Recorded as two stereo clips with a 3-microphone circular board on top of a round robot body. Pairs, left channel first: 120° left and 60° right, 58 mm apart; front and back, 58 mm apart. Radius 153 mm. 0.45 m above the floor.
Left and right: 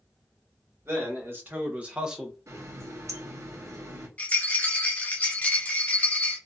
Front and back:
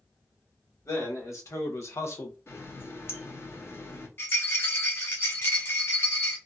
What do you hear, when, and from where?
0.8 s a man speaking: 20° right, 1.8 m; by 2.4 s 30° left, 0.9 m
2.5 s a running tap: 40° right, 1.0 m
4.2 s a rattle: 55° left, 0.6 m